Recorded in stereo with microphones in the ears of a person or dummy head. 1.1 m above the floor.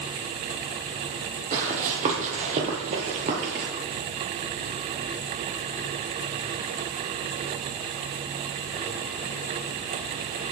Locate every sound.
1.5 s running footsteps: 45° right (ahead or behind), 2 m; by 3.7 s 35° right (ahead or behind), 1.3 m